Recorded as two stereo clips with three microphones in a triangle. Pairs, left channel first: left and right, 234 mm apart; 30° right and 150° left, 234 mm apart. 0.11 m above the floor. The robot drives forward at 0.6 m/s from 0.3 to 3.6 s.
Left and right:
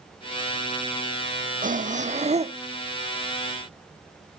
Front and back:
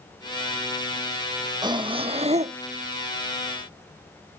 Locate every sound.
1.6 s breathing: 140° right; by 2.6 s 150° right